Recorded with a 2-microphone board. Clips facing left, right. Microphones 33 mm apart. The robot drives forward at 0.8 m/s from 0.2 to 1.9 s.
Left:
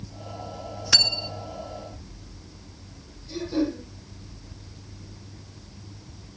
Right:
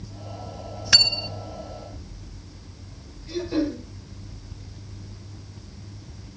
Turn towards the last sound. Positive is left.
turn(degrees=-60)  # may be behind; listen again after turning